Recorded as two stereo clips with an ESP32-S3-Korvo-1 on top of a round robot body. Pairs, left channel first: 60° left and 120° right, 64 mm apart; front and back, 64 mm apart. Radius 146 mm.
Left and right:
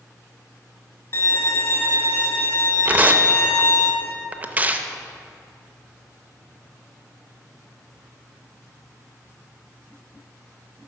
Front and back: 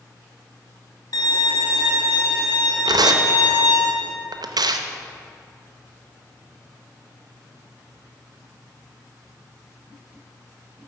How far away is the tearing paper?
About 0.6 m.